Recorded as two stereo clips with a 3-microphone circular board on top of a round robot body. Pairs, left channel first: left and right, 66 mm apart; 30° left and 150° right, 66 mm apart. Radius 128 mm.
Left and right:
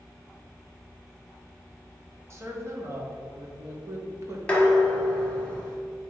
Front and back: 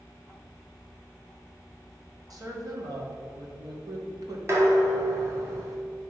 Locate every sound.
2.3 s a woman speaking: 135° right, 1.7 m
4.5 s dishes clattering: 165° left, 1.4 m